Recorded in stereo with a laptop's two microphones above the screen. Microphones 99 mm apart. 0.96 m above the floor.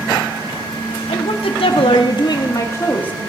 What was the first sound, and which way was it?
A woman speaking, 75° left (ahead or behind).